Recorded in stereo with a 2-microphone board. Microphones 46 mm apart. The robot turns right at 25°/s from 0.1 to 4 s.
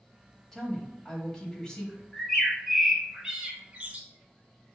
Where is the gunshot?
I don't hear a gunshot.